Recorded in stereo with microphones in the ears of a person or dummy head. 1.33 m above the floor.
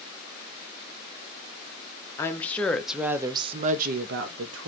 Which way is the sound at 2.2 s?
15° left (ahead or behind).